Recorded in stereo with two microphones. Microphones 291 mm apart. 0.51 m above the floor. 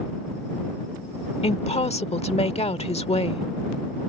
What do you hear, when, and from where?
1.4 s a woman speaking: 20° left (ahead or behind)